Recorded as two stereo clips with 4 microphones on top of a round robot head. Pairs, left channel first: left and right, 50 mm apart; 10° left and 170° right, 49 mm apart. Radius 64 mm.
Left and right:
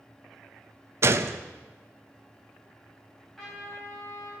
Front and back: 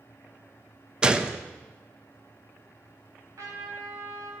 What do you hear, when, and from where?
1.0 s a gunshot: 100° right, 0.8 m
3.4 s a trumpet: 175° left, 4 m